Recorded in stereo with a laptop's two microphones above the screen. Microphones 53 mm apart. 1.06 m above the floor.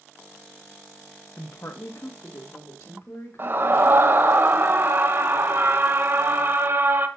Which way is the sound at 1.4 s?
60° left (ahead or behind).